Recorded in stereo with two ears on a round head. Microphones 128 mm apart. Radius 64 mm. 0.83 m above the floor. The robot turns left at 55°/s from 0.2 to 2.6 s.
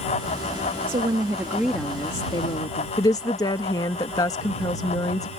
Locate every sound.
0.9 s a woman speaking: 135° right; by 2.9 s 130° left
3.0 s a woman speaking: 25° left (ahead or behind)